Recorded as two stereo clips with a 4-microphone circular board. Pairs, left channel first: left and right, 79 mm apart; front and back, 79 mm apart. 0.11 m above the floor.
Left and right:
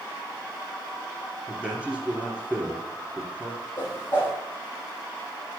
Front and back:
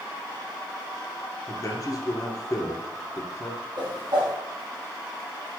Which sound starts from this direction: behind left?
A whoosh, at 3.8 s.